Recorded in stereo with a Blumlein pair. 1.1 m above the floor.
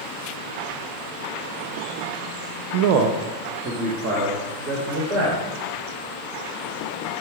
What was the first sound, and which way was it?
A man speaking, 50° right.